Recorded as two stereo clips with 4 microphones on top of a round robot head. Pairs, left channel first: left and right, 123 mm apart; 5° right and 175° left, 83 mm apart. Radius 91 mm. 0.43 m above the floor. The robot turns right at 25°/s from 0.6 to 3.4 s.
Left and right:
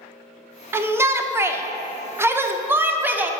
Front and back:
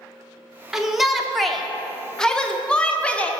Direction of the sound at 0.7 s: 110° right.